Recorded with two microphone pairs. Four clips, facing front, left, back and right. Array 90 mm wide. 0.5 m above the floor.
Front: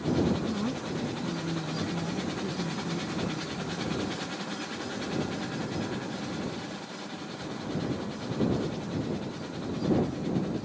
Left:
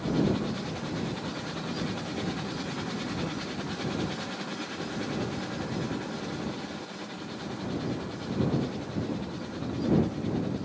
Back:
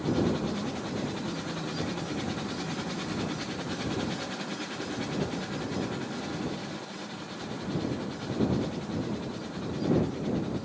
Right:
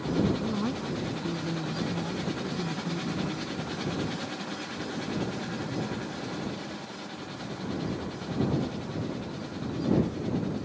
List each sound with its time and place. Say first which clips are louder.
0.4 s a woman speaking: right 3 dB, front 1 dB; 75° right; by 3.9 s 35° right